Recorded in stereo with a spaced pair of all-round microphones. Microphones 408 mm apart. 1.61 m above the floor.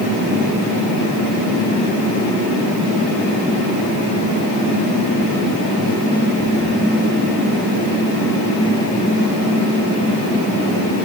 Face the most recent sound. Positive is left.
No sound to turn to.